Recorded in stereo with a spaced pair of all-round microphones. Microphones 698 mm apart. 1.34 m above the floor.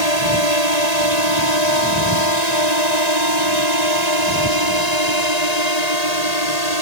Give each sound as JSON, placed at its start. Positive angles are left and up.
{"t": 0.0, "sound": "a drone", "side_deg": 65}